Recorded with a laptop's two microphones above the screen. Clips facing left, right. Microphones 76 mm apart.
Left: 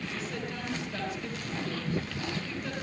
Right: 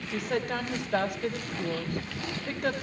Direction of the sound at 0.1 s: 75° right (ahead or behind).